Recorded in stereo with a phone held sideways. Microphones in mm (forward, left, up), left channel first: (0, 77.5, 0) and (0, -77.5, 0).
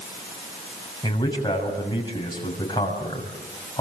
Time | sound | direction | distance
1.0 | a man speaking | 30° left (ahead or behind) | 6.5 m